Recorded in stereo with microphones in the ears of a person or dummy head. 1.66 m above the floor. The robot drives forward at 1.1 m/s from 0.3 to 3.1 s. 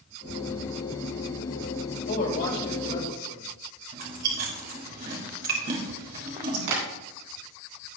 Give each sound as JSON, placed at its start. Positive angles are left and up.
{"t": 2.1, "sound": "a man speaking", "side_deg": 55, "distance_m": 5.5}
{"t": 3.9, "sound": "chewing", "side_deg": -50, "distance_m": 3.5}
{"t": 6.7, "sound": "tapping", "side_deg": -70, "distance_m": 3.5}